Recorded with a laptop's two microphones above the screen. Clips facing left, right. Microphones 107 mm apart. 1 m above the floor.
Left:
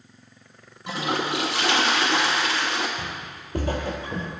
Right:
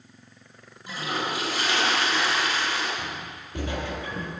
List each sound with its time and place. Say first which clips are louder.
0.9 s a toilet flushing: left 4 dB; 75° left (ahead or behind), 1.0 m
3.0 s footsteps: left 1 dB; 50° left (ahead or behind), 1.8 m; by 4.3 s 30° left (ahead or behind), 1.1 m